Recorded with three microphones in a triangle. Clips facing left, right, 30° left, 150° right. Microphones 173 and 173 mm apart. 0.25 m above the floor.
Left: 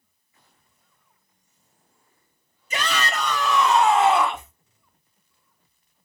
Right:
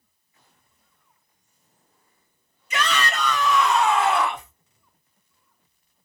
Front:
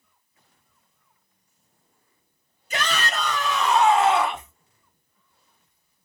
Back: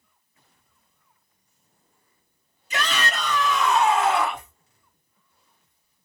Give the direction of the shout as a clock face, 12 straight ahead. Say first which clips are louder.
Right 1 dB, even; 10 o'clock.